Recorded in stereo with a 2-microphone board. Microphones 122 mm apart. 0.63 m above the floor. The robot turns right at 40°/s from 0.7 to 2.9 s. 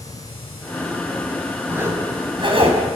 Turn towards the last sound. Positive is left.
turn(degrees=-115)